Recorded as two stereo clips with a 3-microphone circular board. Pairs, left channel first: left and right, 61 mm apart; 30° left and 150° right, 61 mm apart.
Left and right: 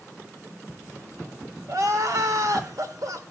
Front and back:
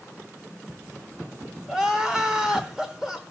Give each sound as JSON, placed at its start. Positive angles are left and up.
{"t": 1.7, "sound": "crying", "azimuth_deg": -70, "distance_m": 1.1}